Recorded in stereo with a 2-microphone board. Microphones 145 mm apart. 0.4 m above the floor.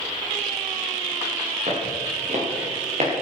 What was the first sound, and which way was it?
Footsteps, 50° right (ahead or behind).